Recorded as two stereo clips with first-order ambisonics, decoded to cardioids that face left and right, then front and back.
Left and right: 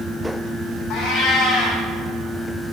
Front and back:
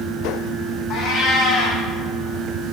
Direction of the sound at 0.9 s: 45° left.